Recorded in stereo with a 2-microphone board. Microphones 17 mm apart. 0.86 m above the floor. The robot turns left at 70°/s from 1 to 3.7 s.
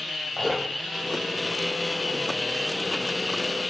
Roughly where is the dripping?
Centre.